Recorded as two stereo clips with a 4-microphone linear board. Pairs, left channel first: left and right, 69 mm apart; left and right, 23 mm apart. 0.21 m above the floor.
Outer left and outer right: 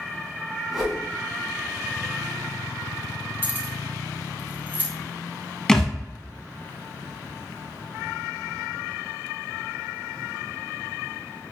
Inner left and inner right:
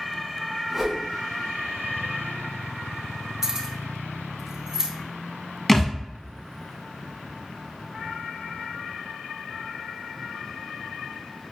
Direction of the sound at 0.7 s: 5° right (ahead or behind).